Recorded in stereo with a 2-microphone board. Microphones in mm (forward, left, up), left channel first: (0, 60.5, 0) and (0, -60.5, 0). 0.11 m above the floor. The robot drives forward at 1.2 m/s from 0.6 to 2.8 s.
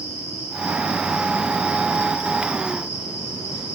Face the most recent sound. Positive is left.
turn(degrees=80)